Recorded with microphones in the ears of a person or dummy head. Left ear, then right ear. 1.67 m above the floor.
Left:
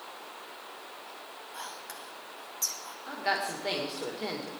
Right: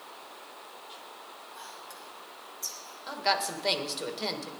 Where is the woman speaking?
30° right (ahead or behind), 1.9 m.